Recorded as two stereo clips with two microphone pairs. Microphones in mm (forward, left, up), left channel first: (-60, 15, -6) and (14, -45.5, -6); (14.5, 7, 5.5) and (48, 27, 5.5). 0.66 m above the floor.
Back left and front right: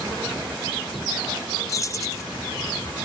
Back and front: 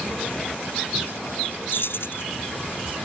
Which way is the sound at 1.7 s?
165° right.